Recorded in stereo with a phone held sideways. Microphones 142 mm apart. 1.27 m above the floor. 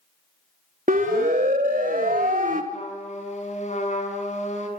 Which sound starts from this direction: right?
A siren, at 0.9 s.